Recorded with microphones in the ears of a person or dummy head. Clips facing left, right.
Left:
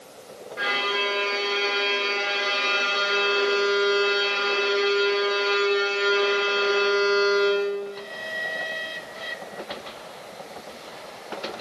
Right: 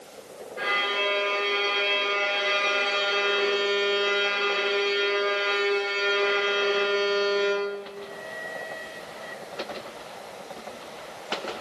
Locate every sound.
0.6 s a violin: 55° left (ahead or behind), 2 m